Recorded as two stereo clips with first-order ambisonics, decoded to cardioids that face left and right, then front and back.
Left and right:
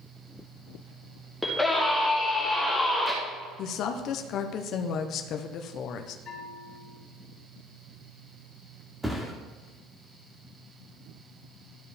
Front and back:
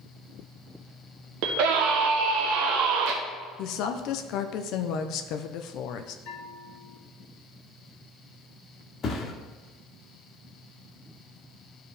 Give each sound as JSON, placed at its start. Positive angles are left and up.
{"t": 1.4, "sound": "a scream", "azimuth_deg": 175, "distance_m": 0.9}
{"t": 3.6, "sound": "a woman speaking", "azimuth_deg": 40, "distance_m": 0.7}
{"t": 6.2, "sound": "a bell", "azimuth_deg": 25, "distance_m": 2.5}
{"t": 9.0, "sound": "a thud", "azimuth_deg": -10, "distance_m": 1.1}